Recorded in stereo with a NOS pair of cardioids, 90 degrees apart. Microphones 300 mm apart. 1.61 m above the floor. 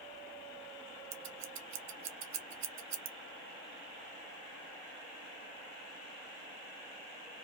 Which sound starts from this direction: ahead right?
Scissors, at 1.1 s.